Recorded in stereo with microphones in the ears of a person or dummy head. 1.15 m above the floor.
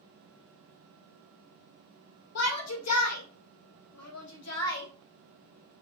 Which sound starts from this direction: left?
A shout, at 2.4 s.